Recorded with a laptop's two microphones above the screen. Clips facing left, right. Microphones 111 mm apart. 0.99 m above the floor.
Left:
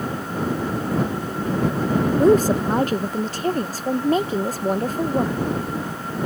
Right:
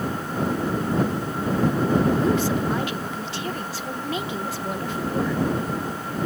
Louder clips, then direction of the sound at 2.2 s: Left 6 dB; 40° left (ahead or behind).